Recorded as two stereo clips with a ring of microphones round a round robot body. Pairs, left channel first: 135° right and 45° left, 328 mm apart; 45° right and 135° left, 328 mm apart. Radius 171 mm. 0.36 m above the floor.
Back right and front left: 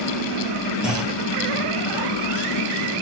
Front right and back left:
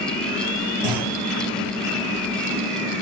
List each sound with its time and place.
0.8 s a clunk: 135° left, 7 m